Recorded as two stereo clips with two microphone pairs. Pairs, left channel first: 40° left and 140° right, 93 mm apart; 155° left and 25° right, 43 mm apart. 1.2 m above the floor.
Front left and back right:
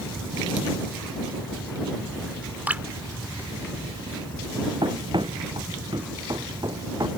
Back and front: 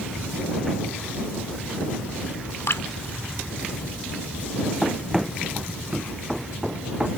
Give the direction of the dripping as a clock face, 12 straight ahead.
7 o'clock.